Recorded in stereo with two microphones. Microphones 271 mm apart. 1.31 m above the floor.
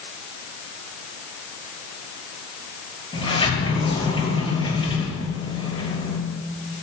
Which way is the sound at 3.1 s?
20° left (ahead or behind).